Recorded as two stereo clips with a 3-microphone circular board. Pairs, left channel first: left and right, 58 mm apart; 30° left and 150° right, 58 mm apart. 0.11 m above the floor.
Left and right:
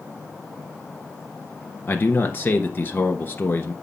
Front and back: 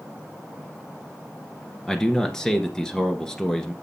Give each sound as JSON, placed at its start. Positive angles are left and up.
{"t": 1.9, "sound": "a man speaking", "azimuth_deg": 105, "distance_m": 1.3}